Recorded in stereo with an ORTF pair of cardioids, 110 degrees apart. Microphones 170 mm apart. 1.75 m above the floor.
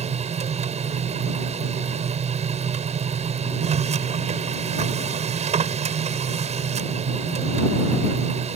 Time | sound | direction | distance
0.0 | a machine running | 40° right | ?